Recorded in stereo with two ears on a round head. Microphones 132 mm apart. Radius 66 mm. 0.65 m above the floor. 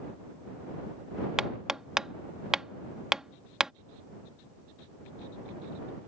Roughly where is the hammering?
Centre.